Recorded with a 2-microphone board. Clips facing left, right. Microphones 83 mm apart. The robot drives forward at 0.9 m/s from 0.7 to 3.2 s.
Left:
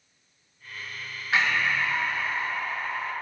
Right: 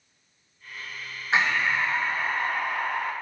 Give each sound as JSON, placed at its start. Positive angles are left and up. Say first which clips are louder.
{"t": 1.3, "sound": "breathing", "louder": "right 1 dB", "side_deg": -25, "distance_m": 1.5}